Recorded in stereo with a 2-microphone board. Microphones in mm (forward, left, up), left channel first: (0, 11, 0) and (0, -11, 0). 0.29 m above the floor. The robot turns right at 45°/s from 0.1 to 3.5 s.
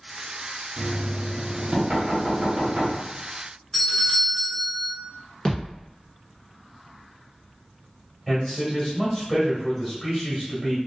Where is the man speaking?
15° left (ahead or behind), 1.3 m.